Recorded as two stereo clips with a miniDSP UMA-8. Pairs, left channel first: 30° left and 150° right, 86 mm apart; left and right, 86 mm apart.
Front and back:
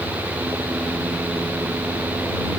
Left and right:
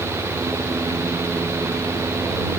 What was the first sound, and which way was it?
Only background noise.